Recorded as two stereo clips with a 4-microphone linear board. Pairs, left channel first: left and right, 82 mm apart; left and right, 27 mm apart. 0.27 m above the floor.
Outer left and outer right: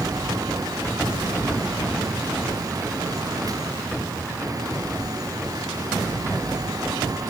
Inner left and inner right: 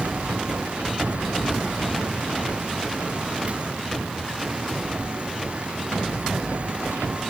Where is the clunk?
I don't hear a clunk.